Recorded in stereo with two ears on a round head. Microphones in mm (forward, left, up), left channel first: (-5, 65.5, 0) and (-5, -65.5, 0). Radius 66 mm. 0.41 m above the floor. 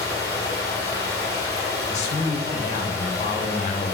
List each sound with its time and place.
0.0 s running water: 25° left (ahead or behind), 2.5 m
1.9 s a man speaking: 50° left (ahead or behind), 1.1 m